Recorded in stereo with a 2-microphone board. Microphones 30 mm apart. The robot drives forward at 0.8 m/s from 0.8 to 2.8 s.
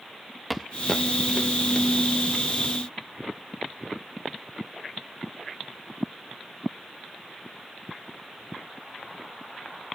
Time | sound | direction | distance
0.5 | footsteps | centre (ahead or behind) | 0.6 m